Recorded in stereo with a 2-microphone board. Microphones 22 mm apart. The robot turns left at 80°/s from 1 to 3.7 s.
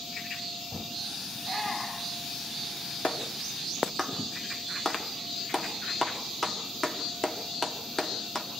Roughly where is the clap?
Left.